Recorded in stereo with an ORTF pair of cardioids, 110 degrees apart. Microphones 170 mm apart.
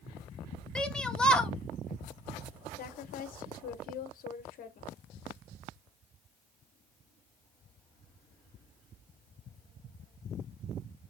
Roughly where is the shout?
Ahead.